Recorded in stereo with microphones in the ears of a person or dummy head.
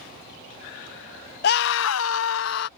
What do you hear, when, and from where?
1.4 s a scream: 60° left (ahead or behind); by 2.7 s 65° left (ahead or behind)